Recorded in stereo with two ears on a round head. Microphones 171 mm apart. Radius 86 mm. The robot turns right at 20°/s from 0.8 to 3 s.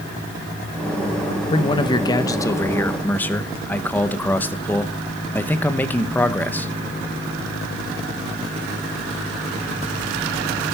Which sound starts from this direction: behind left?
A man speaking, at 1.5 s.